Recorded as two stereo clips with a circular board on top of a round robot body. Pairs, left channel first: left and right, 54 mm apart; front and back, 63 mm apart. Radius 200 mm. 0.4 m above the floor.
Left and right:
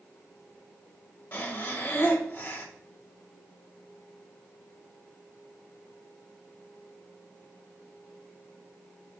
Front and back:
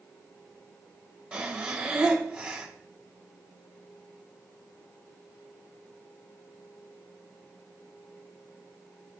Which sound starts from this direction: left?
Breathing, at 1.3 s.